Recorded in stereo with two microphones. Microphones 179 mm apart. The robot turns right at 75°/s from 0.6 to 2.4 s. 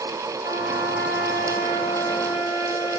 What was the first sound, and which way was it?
A trumpet, 55° left.